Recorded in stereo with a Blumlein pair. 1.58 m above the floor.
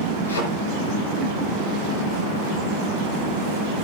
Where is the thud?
70° left, 8.5 m.